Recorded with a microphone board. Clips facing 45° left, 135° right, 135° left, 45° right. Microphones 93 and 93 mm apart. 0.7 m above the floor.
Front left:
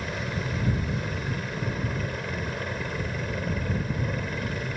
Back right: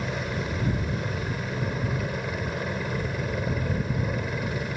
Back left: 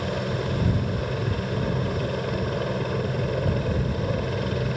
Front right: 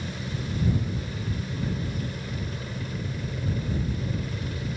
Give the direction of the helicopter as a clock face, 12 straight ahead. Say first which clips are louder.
Back right 2 dB, back left 7 dB; 7 o'clock.